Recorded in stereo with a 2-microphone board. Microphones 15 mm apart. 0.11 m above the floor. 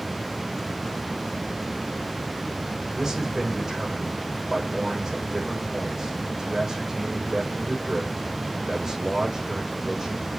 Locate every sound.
2.9 s a man speaking: 30° right (ahead or behind), 6 m